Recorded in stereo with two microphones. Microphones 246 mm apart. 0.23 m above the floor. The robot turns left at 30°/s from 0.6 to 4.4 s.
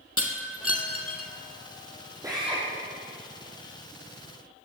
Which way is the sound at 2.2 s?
15° right (ahead or behind).